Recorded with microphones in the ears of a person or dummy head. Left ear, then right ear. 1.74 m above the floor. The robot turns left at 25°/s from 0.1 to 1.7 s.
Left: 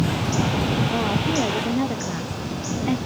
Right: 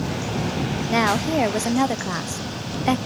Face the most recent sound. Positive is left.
turn(degrees=-50)  # may be behind; listen again after turning